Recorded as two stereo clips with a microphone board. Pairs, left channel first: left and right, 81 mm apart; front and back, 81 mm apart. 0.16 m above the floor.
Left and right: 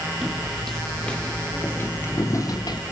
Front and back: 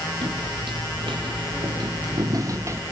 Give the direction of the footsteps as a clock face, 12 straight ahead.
6 o'clock.